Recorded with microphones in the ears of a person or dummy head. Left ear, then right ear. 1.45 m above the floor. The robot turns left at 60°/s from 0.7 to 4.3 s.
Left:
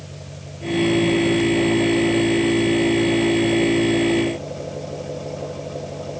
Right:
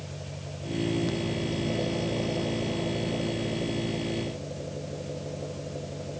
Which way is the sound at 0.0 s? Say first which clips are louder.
Left 2 dB; 15° right.